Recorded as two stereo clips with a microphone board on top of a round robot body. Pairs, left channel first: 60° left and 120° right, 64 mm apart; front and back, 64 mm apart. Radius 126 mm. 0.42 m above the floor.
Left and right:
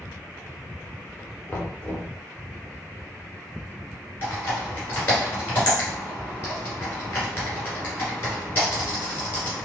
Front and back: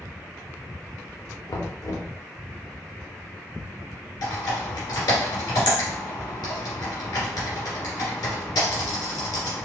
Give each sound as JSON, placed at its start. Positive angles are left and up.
{"t": 1.5, "sound": "knocking", "azimuth_deg": 5, "distance_m": 1.1}
{"t": 4.2, "sound": "typing on a keyboard", "azimuth_deg": 0, "distance_m": 2.0}